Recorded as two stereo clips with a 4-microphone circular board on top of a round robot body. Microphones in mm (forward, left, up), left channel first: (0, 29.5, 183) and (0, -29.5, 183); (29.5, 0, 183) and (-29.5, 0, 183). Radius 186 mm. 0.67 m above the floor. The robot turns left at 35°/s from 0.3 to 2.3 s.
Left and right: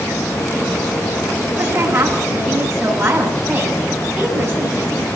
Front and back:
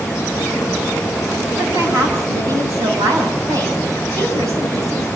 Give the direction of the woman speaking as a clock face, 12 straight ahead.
5 o'clock.